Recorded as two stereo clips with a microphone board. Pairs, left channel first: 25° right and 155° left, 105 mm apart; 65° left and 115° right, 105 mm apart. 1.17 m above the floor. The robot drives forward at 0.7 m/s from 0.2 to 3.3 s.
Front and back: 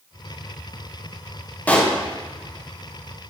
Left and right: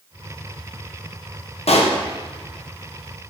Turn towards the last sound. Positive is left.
turn(degrees=150)